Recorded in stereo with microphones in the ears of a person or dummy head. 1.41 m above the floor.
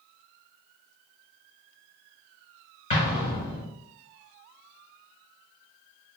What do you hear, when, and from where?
2.9 s an explosion: 30° left (ahead or behind), 1.0 m